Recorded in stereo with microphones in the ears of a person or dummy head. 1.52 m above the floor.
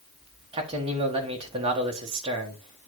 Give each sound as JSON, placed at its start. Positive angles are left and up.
{"t": 0.5, "sound": "a man speaking", "side_deg": -30, "distance_m": 1.6}